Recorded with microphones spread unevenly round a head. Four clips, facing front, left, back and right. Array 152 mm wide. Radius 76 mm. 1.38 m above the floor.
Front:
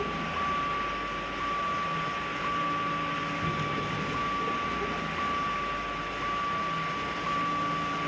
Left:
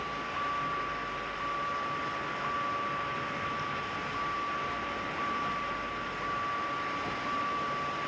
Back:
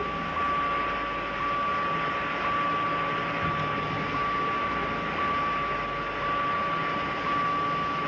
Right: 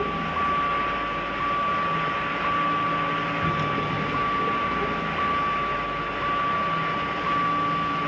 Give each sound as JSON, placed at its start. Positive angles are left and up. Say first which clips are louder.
{"t": 0.0, "sound": "a vehicle", "louder": "right 9 dB, back 2 dB", "azimuth_deg": -80}